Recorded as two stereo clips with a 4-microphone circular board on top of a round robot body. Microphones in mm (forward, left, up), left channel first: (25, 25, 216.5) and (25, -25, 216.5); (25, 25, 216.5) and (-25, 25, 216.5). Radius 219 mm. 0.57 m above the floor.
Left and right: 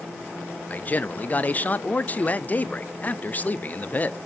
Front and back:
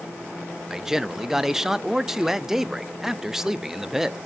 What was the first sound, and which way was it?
A man speaking, 105° left.